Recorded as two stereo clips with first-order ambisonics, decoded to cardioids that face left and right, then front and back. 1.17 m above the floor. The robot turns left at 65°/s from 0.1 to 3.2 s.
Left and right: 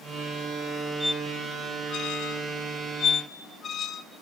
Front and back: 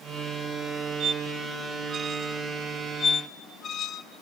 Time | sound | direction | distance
1.0 | a squeak | 175° right | 0.6 m